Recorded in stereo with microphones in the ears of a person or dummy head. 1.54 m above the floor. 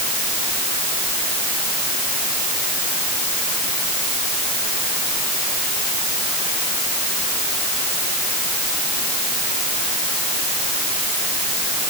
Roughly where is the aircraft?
No aircraft in this recording.